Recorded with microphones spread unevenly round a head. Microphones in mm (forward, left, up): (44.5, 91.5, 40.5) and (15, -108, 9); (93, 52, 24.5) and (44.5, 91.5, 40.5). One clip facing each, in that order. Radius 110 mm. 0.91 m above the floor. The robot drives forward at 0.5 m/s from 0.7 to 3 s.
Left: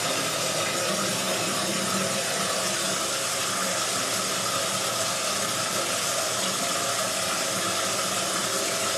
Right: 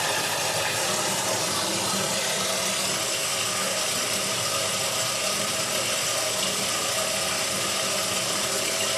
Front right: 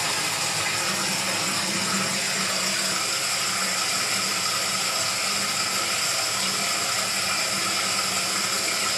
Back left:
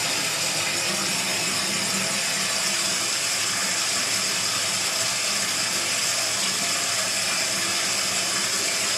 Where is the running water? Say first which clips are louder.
Even, front right 1 dB; 95° right, 4.5 m; by 9.0 s 110° right, 4.5 m.